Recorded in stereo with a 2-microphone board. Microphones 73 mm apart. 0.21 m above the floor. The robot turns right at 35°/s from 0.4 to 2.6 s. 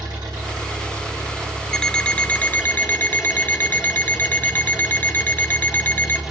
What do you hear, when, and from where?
0.0 s an engine running: 80° right, 4 m; by 6.3 s 5° right, 4 m
1.7 s an alarm clock: 15° left, 0.6 m; by 6.2 s 45° left, 0.6 m